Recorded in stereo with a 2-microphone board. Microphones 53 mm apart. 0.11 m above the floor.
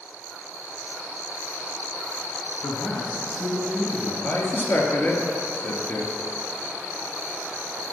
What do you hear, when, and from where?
2.6 s a man speaking: 60° left (ahead or behind), 3.5 m
4.2 s a man speaking: 45° left (ahead or behind), 2.5 m